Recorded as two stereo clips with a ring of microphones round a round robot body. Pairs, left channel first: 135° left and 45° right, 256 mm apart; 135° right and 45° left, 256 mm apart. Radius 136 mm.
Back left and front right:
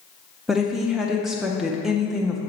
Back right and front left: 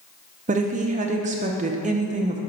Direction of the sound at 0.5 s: 40° left.